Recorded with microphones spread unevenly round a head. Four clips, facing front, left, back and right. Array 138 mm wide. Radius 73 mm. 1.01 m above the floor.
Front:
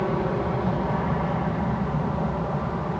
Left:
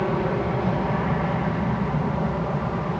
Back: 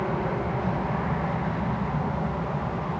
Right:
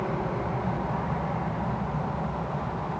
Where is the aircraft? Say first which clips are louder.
Left 6 dB, front 2 dB; 65° left; by 3.0 s 70° left.